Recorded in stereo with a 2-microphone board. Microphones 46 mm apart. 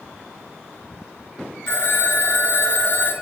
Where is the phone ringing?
50° left (ahead or behind), 1.4 m.